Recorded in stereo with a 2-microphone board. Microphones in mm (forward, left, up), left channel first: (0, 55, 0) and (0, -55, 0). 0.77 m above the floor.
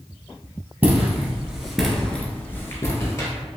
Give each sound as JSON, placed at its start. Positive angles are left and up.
{"t": 0.8, "sound": "footsteps", "side_deg": -20, "distance_m": 1.1}